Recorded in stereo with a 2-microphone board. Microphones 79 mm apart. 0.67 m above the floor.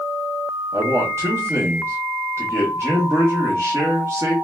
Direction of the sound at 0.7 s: 35° right (ahead or behind).